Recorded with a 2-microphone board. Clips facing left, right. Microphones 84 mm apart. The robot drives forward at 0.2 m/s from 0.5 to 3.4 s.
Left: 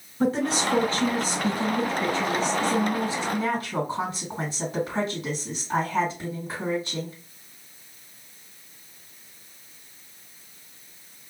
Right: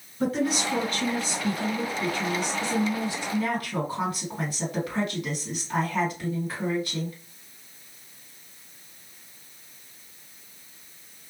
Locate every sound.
0.2 s a woman speaking: 30° left (ahead or behind), 1.6 m; by 7.2 s 25° left (ahead or behind), 2 m